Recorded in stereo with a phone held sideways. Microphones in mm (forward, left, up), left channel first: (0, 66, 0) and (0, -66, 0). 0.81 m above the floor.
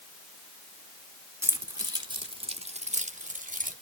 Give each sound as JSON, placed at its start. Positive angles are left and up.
{"t": 1.4, "sound": "keys jangling", "side_deg": -20, "distance_m": 1.3}